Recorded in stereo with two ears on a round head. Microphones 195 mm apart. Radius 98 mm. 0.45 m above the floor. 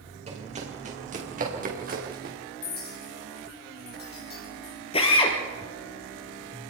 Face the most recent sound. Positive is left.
turn(degrees=25)  # may be behind; listen again after turning